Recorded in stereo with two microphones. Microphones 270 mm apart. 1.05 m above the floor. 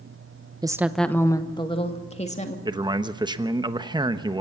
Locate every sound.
0.6 s a woman speaking: 15° right (ahead or behind), 0.8 m; by 2.5 s 25° left (ahead or behind), 2.5 m
2.6 s a man speaking: 15° right (ahead or behind), 1.0 m